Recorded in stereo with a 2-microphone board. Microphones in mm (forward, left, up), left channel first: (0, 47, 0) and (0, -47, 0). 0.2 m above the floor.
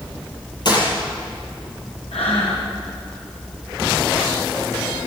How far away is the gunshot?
About 6.5 m.